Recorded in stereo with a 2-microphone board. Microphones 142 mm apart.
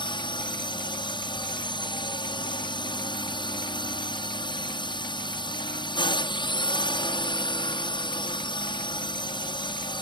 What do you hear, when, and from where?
0.0 s a drone: 30° left (ahead or behind)